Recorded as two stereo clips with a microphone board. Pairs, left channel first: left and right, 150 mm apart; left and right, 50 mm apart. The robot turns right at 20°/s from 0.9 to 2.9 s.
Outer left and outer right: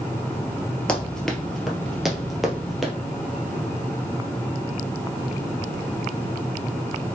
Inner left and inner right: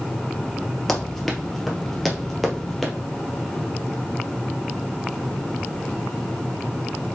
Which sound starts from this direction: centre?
Running footsteps, at 0.9 s.